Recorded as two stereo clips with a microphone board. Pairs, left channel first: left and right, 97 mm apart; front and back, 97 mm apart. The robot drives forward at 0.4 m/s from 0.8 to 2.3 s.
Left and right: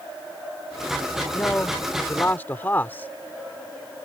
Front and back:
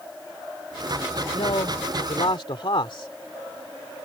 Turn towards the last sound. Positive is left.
turn(degrees=20)